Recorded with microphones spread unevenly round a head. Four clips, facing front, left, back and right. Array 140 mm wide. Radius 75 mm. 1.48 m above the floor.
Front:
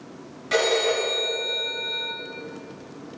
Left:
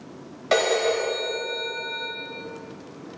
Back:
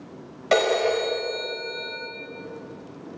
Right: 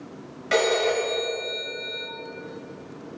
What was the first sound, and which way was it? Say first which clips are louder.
A phone ringing: even, back 2 dB; 150° left.